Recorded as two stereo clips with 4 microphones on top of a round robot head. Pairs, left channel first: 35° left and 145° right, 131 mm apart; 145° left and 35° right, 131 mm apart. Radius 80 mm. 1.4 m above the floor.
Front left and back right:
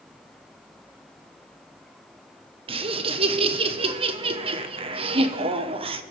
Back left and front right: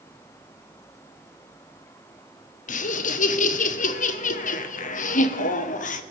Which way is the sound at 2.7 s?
170° left.